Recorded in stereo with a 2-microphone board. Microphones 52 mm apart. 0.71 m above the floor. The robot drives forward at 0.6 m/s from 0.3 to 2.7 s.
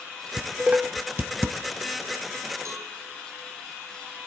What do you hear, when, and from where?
0.4 s dishes clattering: 20° right (ahead or behind), 1.1 m; by 1.6 s 50° right (ahead or behind), 0.6 m
2.6 s a cowbell: 80° right, 5.5 m